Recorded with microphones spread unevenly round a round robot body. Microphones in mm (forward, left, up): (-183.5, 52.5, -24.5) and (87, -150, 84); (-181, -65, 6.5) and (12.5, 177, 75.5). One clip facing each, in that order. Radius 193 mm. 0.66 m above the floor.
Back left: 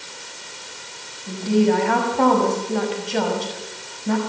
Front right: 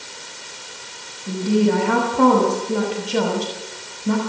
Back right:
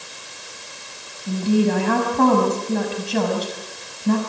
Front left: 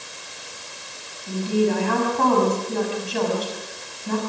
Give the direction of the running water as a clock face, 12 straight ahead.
I don't hear running water.